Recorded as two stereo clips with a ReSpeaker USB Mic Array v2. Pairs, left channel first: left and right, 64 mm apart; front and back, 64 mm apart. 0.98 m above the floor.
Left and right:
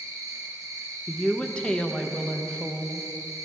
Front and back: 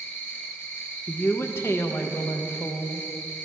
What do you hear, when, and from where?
0.0 s an insect: 60° right, 1.2 m
1.1 s a woman speaking: 20° left, 0.6 m